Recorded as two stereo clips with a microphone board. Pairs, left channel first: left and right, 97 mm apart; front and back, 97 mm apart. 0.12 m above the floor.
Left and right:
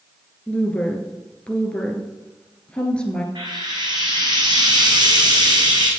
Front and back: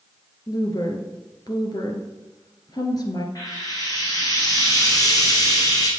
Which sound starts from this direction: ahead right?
Frying, at 3.4 s.